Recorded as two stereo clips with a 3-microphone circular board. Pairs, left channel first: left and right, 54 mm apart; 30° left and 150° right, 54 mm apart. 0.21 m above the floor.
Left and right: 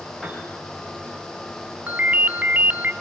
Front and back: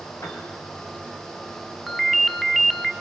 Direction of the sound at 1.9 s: 60° right.